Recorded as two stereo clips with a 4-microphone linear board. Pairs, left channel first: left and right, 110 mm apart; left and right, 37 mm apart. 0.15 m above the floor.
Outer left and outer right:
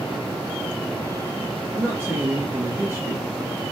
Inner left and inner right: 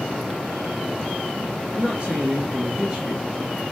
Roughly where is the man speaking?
Right.